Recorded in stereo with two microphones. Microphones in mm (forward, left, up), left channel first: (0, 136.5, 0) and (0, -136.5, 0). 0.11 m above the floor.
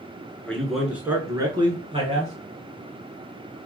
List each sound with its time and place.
0.5 s a man speaking: 5° left (ahead or behind), 1.4 m; by 2.3 s 25° right (ahead or behind), 1.7 m